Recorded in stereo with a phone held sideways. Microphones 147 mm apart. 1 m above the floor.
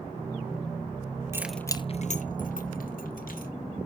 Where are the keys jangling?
20° right (ahead or behind), 0.6 m; by 3.5 s 85° left, 2 m.